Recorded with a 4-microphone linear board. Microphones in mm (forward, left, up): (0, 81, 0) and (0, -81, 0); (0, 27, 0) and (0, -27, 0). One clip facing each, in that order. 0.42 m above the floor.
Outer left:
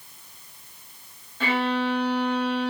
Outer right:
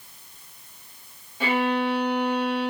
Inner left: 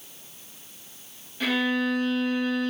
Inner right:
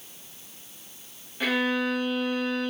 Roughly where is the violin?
Centre.